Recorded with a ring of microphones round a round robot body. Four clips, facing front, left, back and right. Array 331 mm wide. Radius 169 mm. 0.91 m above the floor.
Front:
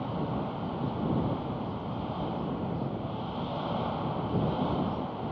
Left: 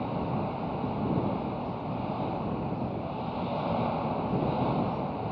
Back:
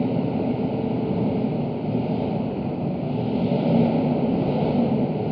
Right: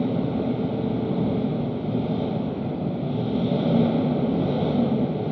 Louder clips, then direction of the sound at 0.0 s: Right 7 dB, back 10 dB; 140° right.